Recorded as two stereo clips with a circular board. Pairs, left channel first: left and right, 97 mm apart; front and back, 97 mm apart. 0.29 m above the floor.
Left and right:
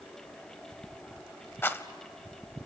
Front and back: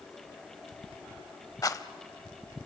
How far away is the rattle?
About 0.6 m.